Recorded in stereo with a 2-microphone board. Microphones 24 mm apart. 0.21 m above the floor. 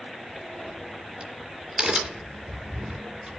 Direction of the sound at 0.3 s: 50° right (ahead or behind).